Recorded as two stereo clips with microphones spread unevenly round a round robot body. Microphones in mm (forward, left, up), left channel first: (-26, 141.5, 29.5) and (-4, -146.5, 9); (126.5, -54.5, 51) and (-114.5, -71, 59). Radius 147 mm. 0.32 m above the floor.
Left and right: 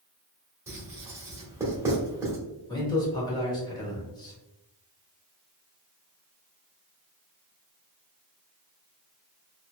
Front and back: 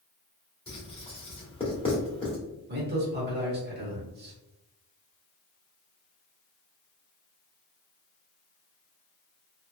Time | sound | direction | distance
0.7 | writing | 25° right | 1.1 m
2.7 | a man speaking | 170° left | 1.0 m